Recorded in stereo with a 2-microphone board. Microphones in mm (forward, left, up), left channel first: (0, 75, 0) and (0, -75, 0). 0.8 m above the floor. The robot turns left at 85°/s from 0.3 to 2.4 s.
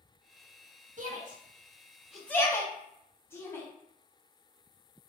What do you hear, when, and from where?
1.0 s a shout: 60° right (ahead or behind), 1.2 m; by 3.6 s 15° left (ahead or behind), 1.2 m